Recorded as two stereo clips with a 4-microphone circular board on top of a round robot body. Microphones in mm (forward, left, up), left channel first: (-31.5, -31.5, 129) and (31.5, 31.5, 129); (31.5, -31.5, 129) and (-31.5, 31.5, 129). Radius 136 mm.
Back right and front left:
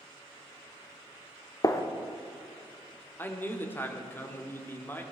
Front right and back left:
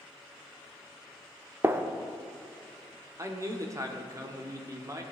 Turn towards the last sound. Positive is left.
turn(degrees=170)